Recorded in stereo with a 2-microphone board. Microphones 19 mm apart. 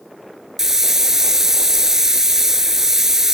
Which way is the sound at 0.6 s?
20° right (ahead or behind).